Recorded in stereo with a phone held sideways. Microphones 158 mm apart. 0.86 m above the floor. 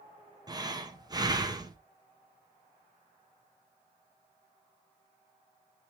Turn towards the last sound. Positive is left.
turn(degrees=-25)  # may be behind; listen again after turning